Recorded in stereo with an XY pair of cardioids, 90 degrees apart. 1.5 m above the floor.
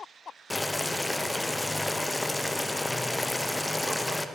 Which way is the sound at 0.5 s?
15° left.